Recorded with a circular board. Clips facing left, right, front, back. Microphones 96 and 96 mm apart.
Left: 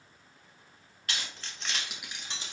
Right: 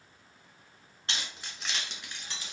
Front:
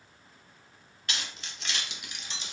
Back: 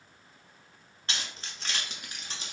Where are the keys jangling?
140° right, 1.0 m; by 2.5 s 145° left, 1.2 m.